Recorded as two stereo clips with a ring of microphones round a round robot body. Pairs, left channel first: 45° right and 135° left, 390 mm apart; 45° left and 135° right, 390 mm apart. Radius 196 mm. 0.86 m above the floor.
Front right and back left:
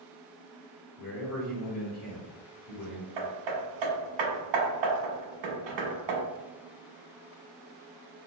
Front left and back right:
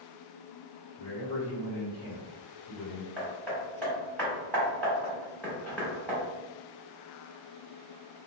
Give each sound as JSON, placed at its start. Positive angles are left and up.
{"t": 1.0, "sound": "a man speaking", "azimuth_deg": 0, "distance_m": 1.7}
{"t": 3.2, "sound": "hammering", "azimuth_deg": 130, "distance_m": 1.0}